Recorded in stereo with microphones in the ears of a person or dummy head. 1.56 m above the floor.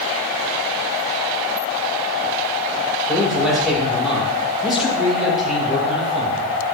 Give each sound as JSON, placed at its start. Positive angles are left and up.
{"t": 3.1, "sound": "a man speaking", "side_deg": -5, "distance_m": 5.5}